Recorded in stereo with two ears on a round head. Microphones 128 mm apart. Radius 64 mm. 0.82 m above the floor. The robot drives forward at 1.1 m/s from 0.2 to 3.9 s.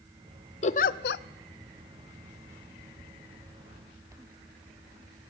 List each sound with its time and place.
0.6 s a giggle: 45° left (ahead or behind), 0.7 m; by 1.2 s 65° left (ahead or behind), 0.5 m